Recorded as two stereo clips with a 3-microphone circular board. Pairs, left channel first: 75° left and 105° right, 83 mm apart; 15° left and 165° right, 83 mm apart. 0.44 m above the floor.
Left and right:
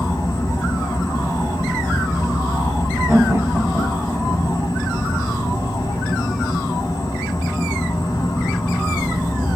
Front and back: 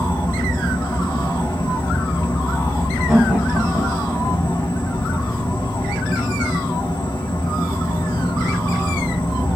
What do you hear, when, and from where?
0.0 s an insect: 25° left, 0.9 m
3.1 s laughter: 95° right, 1.0 m